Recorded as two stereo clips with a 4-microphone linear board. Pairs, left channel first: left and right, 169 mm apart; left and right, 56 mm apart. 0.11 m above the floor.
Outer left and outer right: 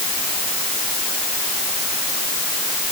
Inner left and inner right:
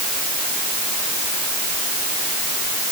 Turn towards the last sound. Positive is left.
No sound to turn to.